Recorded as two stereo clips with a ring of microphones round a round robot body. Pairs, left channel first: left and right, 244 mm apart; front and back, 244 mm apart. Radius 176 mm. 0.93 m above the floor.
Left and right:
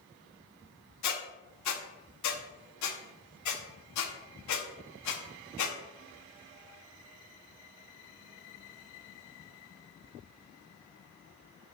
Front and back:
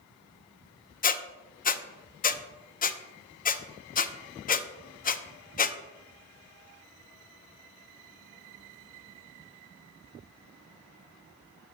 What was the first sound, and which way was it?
A squeak, 60° left.